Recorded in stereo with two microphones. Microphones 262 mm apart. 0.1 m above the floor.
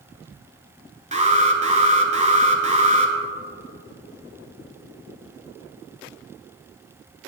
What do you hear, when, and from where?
1.1 s an alarm: 25° right (ahead or behind), 1.0 m